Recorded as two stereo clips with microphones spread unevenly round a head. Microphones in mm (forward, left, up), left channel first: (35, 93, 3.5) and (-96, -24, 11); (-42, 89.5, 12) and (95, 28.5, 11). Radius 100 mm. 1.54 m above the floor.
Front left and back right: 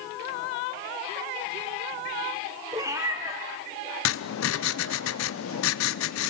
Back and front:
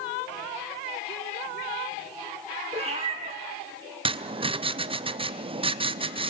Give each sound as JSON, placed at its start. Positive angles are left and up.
{"t": 2.7, "sound": "a cat meowing", "azimuth_deg": -70, "distance_m": 1.5}
{"t": 4.0, "sound": "writing", "azimuth_deg": 30, "distance_m": 0.7}